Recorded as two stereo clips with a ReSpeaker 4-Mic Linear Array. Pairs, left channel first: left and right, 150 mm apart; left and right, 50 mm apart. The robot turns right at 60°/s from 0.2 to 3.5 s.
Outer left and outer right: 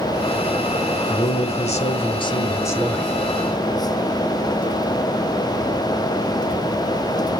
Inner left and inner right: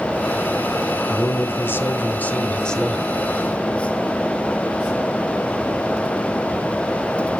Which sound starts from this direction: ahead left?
A man speaking, at 1.1 s.